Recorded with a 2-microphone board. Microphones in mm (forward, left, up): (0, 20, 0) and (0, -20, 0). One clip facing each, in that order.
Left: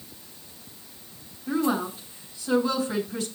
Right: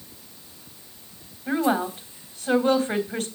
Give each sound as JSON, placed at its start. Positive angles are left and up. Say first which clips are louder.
{"t": 1.5, "sound": "a woman speaking", "louder": "right 2 dB", "side_deg": -60, "distance_m": 3.0}